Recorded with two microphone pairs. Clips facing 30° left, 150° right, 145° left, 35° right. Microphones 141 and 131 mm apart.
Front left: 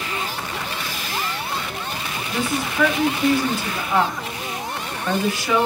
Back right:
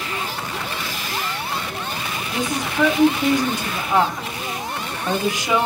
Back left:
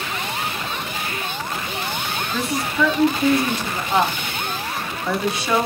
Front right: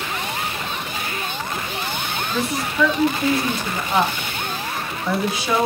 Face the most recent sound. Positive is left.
turn(degrees=-120)